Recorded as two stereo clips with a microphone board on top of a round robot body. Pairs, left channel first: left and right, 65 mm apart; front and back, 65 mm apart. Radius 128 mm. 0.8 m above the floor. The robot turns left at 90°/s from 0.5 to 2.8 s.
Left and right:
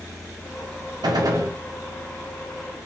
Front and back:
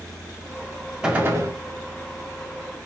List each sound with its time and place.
1.0 s a gunshot: 100° right, 0.9 m; by 1.6 s 145° right, 0.9 m